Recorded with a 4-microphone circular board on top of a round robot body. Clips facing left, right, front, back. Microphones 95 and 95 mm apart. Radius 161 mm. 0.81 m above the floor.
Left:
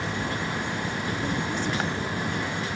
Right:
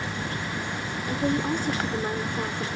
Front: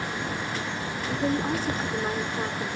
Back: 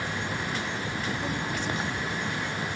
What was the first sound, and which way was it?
A woman speaking, 50° right.